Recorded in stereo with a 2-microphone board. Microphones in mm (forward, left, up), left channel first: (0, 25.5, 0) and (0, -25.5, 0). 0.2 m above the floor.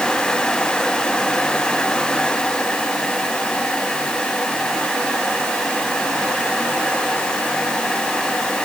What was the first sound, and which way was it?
Only background noise.